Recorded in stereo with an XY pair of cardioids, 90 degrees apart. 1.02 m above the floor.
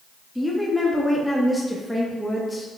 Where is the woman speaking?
Straight ahead, 1.4 m.